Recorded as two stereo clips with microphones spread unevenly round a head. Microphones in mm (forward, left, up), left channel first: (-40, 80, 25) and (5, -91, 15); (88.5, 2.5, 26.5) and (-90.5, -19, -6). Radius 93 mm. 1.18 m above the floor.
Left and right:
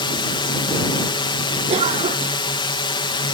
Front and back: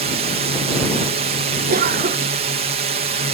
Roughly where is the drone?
Behind.